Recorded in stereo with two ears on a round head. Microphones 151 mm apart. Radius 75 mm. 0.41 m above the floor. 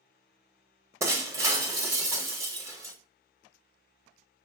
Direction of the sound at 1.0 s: 15° right (ahead or behind).